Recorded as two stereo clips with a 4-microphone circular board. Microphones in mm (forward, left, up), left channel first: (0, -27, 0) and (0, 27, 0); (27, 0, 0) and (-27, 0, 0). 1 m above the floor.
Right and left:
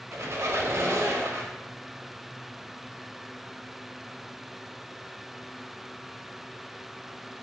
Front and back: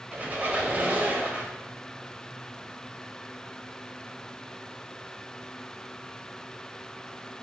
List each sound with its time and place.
0.1 s a squeak: 115° left, 0.5 m